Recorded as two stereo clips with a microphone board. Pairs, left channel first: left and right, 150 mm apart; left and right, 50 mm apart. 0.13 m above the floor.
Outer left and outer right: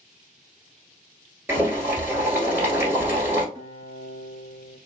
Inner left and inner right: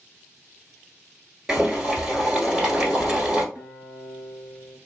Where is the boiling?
15° right (ahead or behind), 1.3 m.